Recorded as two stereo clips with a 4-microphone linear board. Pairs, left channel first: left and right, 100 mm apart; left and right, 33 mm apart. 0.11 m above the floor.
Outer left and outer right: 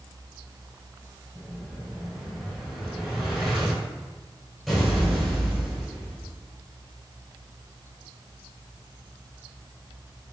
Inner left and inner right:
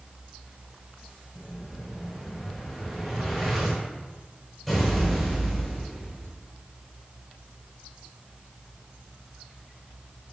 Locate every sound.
1.4 s an explosion: centre (ahead or behind), 1.1 m